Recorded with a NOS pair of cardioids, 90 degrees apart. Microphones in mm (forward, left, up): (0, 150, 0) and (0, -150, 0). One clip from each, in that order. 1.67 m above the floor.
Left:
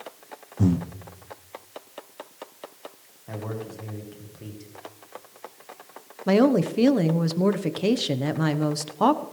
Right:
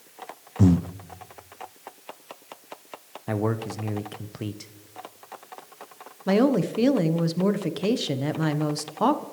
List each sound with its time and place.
0.6 s breathing: 15° right, 0.6 m
3.3 s a man speaking: 65° right, 1.2 m
6.3 s a woman speaking: 10° left, 1.2 m